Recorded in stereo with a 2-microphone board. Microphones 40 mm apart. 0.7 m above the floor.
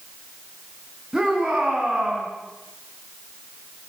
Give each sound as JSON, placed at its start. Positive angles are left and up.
{"t": 1.1, "sound": "a shout", "side_deg": -10, "distance_m": 6.0}